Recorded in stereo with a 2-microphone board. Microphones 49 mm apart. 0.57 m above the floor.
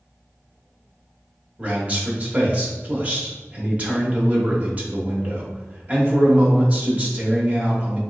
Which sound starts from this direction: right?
A man speaking, at 1.6 s.